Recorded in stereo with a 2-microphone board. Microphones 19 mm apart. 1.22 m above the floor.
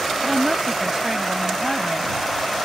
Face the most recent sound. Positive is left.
turn(degrees=-25)  # may be behind; listen again after turning